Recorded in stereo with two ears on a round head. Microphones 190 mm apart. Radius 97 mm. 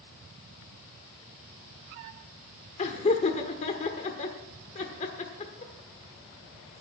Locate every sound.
2.8 s laughter: 35° left (ahead or behind), 1.2 m